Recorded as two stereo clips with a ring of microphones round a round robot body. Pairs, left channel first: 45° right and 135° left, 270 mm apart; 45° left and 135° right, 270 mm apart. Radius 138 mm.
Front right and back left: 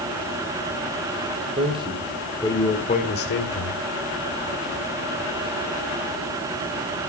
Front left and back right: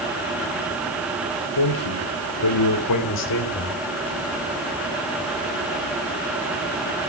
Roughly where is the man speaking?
Ahead left.